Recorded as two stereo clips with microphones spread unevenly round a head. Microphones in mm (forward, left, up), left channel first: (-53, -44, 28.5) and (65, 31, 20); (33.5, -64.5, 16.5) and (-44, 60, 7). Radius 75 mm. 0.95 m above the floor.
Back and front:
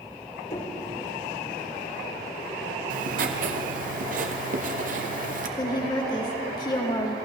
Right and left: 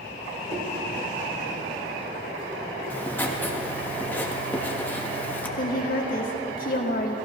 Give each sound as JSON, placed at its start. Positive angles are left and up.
{"t": 0.5, "sound": "knocking", "azimuth_deg": 170, "distance_m": 3.0}
{"t": 2.9, "sound": "writing", "azimuth_deg": 20, "distance_m": 1.3}
{"t": 5.6, "sound": "a woman speaking", "azimuth_deg": -85, "distance_m": 2.0}